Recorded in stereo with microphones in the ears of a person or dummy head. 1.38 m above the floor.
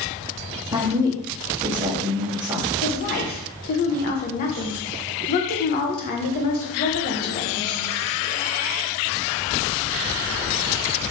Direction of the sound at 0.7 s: 20° right (ahead or behind).